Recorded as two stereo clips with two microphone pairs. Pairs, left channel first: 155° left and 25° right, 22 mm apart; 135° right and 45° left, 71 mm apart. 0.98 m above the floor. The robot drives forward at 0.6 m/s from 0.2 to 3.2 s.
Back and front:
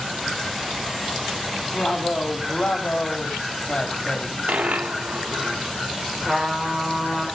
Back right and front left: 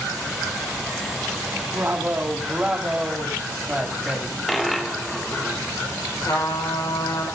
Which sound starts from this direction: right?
A trumpet, at 6.2 s.